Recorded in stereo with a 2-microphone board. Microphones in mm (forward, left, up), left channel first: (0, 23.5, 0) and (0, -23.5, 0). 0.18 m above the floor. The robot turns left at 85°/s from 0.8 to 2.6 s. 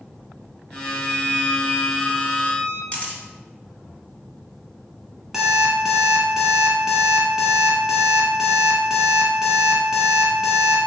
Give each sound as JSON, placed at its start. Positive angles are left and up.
{"t": 0.8, "sound": "a violin", "azimuth_deg": -175, "distance_m": 1.0}
{"t": 2.9, "sound": "a camera shutter", "side_deg": 30, "distance_m": 1.0}
{"t": 5.3, "sound": "an alarm clock", "side_deg": -10, "distance_m": 1.0}